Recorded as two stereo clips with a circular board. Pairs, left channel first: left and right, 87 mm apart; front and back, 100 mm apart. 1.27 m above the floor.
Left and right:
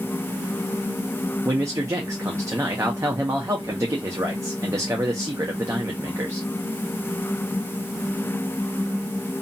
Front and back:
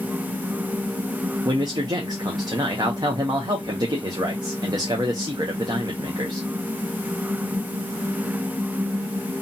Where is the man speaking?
140° right, 0.6 m.